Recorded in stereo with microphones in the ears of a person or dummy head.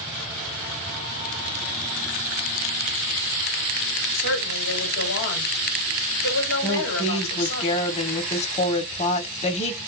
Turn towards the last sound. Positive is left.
turn(degrees=35)  # may be behind; listen again after turning